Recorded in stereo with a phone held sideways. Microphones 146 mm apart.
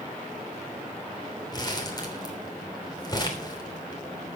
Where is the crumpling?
30° left (ahead or behind), 3 m.